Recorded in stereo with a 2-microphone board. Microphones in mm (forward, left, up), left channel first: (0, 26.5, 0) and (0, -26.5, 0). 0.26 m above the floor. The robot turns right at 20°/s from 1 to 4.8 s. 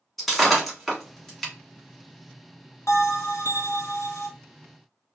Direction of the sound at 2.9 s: 70° left (ahead or behind).